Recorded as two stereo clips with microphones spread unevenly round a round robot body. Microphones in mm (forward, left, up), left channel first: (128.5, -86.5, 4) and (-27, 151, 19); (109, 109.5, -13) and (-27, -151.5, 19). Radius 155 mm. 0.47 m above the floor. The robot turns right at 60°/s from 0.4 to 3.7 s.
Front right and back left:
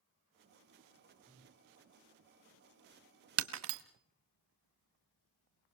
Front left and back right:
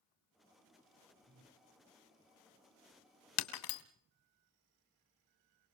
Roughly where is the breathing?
Behind.